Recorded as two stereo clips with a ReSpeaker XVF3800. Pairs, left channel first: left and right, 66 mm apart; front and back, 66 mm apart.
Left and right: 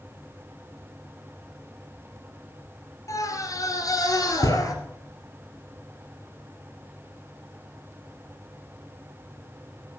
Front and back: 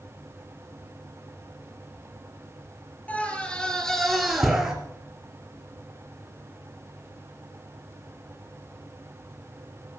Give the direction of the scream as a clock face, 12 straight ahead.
10 o'clock.